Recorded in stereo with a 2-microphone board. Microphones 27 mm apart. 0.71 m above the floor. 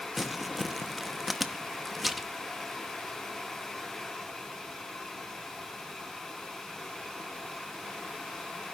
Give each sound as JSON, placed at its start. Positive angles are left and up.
{"t": 0.2, "sound": "crumpling", "side_deg": -5, "distance_m": 0.9}